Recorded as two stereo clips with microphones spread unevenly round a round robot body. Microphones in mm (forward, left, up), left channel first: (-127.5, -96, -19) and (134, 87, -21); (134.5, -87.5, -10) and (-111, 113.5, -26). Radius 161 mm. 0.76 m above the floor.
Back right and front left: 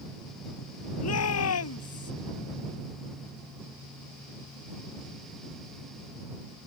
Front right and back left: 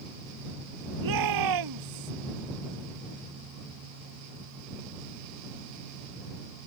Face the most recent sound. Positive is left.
turn(degrees=165)